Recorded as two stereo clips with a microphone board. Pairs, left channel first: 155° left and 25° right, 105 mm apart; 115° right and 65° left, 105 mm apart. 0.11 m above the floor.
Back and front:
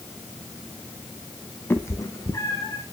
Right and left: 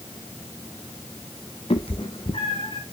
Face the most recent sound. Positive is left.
turn(degrees=-145)